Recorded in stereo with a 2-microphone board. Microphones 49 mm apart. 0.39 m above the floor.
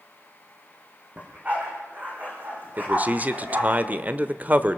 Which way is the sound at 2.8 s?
35° right (ahead or behind).